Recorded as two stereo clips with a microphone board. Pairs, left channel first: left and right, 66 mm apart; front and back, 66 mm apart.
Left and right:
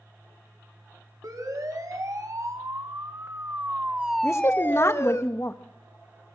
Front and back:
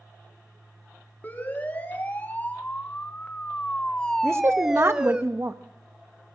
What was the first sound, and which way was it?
A siren, 60° right.